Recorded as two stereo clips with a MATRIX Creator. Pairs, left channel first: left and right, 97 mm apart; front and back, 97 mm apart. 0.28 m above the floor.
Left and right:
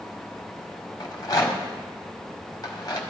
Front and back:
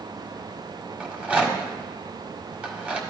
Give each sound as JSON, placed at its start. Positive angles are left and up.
{"t": 1.0, "sound": "a rattle", "azimuth_deg": 110, "distance_m": 1.6}